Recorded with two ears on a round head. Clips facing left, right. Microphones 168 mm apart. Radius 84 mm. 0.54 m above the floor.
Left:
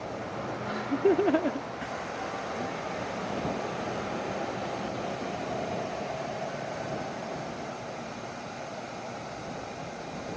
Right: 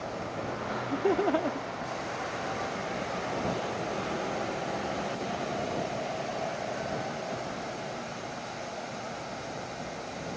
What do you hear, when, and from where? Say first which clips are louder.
0.7 s laughter: left 4 dB; 20° left (ahead or behind)